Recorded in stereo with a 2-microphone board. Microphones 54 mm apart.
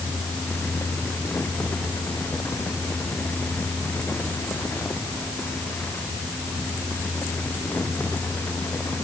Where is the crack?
I don't hear a crack.